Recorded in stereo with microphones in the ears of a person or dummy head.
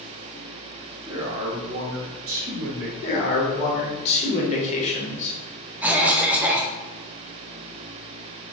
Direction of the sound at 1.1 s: 15° right (ahead or behind).